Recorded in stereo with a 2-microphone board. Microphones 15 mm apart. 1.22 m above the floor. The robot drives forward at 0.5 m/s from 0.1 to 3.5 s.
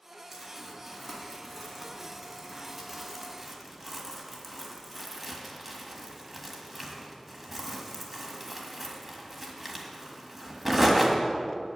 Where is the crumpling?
10° right (ahead or behind), 3 m; by 11.2 s 15° right (ahead or behind), 1.6 m.